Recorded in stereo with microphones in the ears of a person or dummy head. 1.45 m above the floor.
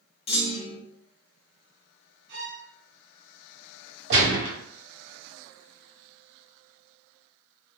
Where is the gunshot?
60° right (ahead or behind), 1.8 m.